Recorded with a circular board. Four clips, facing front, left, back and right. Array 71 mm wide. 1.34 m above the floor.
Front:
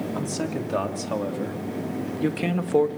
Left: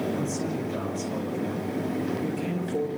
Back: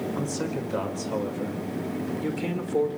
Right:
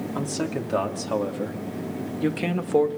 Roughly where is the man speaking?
Ahead right.